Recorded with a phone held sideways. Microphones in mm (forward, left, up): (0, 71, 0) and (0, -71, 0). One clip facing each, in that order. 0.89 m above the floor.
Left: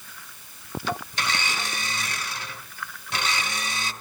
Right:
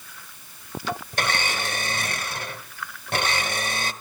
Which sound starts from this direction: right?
A blender, at 1.1 s.